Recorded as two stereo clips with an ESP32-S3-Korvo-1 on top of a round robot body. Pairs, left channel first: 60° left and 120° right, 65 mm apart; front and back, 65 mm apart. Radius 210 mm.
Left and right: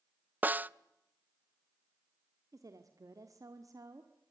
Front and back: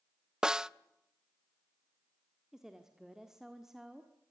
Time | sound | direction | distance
0.4 | a snare drum | 115° right | 0.9 m
2.5 | a woman speaking | 100° right | 1.8 m